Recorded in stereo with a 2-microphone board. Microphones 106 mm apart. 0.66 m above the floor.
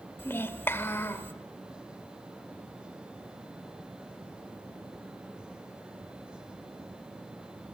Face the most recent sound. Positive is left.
turn(degrees=20)  # may be behind; listen again after turning